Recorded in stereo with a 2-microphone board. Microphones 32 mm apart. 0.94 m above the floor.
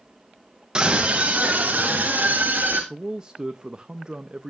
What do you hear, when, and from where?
0.8 s a scream: 25° right (ahead or behind), 0.8 m; by 2.8 s 60° right (ahead or behind), 2 m
2.9 s a man speaking: 20° right (ahead or behind), 0.5 m